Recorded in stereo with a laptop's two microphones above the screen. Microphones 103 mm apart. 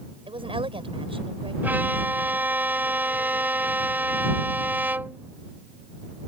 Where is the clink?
No clink in this recording.